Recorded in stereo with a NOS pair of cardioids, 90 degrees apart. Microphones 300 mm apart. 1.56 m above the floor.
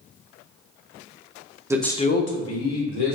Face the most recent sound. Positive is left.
turn(degrees=65)